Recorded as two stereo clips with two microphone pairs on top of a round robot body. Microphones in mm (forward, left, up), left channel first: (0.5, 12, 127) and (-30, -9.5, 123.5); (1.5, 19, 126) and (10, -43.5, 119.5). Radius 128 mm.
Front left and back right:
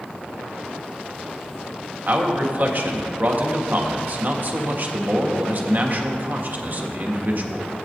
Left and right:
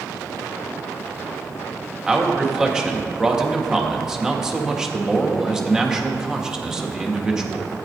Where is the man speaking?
155° right, 1.6 m.